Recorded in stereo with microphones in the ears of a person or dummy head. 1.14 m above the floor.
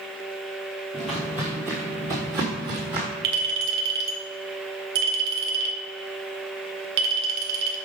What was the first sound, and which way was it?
Footsteps, centre (ahead or behind).